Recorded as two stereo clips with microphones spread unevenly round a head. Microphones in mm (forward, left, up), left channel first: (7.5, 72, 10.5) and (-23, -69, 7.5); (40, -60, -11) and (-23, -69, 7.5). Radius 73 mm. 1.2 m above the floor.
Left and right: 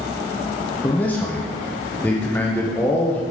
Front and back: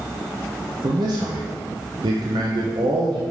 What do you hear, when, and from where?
0.8 s a man speaking: 155° left, 0.9 m